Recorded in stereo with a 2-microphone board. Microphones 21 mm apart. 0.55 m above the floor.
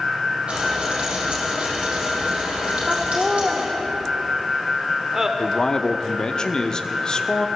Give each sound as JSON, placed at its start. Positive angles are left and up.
{"t": 0.5, "sound": "frying", "side_deg": -55, "distance_m": 5.0}
{"t": 2.9, "sound": "laughter", "side_deg": -20, "distance_m": 1.3}
{"t": 5.4, "sound": "a man speaking", "side_deg": 35, "distance_m": 0.8}